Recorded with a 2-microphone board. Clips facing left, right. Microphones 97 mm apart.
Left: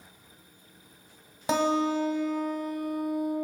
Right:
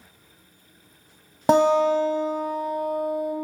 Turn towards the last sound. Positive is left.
turn(degrees=-55)  # may be behind; listen again after turning